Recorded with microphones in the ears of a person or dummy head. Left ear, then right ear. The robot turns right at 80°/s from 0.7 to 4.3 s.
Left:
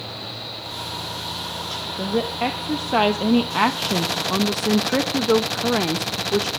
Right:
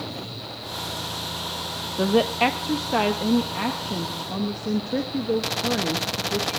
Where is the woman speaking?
65° right, 0.9 m; by 6.5 s 120° left, 0.9 m.